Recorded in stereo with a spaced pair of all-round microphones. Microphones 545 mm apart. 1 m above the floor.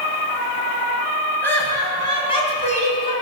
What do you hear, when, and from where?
1.4 s laughter: 5° left (ahead or behind), 5.5 m; by 3.1 s 15° left (ahead or behind), 6 m